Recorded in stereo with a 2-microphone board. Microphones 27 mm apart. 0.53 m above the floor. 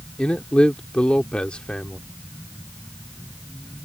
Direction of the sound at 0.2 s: 45° left (ahead or behind).